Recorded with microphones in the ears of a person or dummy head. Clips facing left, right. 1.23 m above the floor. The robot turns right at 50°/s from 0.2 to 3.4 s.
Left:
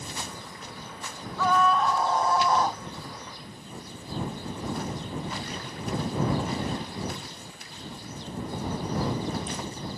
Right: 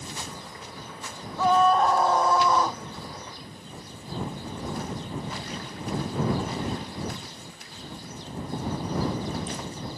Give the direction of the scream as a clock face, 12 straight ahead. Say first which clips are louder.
Right 3 dB; 5 o'clock.